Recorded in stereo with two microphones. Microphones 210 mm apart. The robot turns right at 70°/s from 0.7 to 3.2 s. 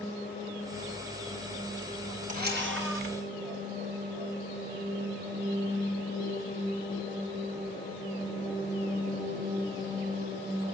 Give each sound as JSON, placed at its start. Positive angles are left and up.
{"t": 2.3, "sound": "a camera shutter", "azimuth_deg": -140, "distance_m": 4.5}